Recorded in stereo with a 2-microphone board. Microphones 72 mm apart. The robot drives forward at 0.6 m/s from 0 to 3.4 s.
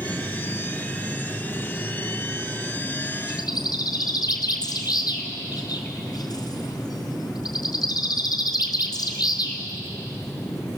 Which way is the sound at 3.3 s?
65° left (ahead or behind).